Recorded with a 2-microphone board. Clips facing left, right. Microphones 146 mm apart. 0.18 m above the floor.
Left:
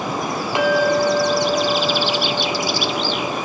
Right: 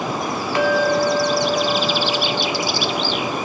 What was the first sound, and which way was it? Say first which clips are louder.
A clink: left 1 dB; 20° left (ahead or behind).